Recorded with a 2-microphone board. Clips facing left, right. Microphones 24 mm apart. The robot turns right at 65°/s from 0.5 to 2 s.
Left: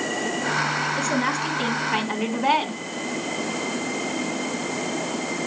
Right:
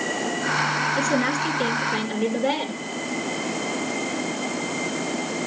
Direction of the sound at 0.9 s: 15° left.